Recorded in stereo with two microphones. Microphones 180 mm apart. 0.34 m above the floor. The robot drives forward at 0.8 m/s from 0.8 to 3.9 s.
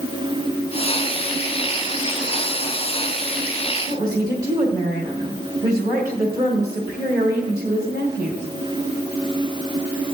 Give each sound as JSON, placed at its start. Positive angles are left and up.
{"t": 3.9, "sound": "a woman speaking", "side_deg": -20, "distance_m": 2.0}